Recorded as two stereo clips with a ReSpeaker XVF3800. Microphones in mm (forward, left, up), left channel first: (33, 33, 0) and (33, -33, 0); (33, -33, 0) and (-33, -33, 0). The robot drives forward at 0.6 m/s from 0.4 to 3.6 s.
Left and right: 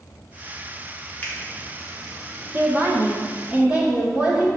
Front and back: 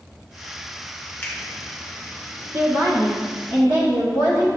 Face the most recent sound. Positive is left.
turn(degrees=-155)